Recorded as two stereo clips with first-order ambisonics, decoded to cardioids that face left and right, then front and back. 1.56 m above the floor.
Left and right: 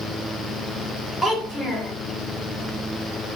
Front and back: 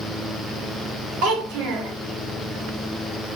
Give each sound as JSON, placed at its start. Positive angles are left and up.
{"t": 1.2, "sound": "a child speaking", "azimuth_deg": 175, "distance_m": 1.0}